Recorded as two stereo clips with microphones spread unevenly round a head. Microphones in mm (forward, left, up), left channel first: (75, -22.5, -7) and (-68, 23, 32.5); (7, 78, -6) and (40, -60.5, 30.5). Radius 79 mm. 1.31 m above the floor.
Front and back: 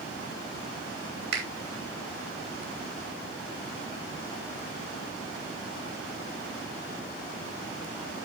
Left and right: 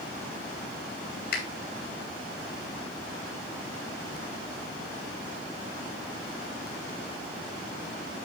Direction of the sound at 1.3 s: 140° left.